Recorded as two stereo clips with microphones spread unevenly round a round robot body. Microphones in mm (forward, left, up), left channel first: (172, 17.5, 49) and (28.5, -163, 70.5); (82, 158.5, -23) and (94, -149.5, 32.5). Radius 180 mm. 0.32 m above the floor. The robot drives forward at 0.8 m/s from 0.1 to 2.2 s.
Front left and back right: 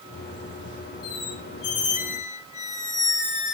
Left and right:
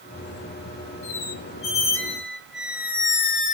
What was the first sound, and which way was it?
A squeak, 75° left.